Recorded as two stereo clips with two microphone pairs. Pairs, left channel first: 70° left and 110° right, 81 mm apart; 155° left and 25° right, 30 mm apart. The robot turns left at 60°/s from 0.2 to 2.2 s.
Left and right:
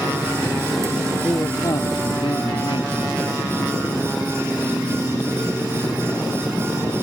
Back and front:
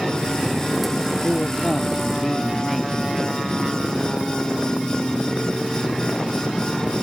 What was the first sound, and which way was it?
A man speaking, 125° left.